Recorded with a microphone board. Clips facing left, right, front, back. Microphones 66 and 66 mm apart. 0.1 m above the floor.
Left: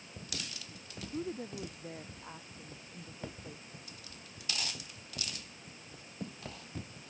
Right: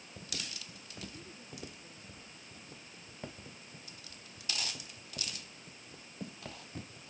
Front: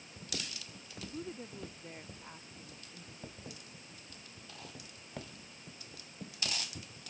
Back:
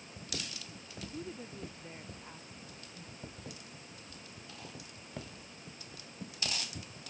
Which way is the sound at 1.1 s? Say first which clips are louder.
Left 11 dB, front 1 dB; 85° left.